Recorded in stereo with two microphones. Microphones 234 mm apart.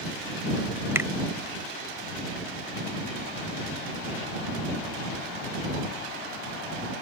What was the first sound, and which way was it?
A finger snap, 10° right (ahead or behind).